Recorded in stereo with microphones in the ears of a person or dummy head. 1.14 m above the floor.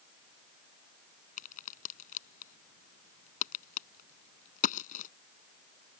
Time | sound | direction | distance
1.4 | a crack | 45° left (ahead or behind) | ?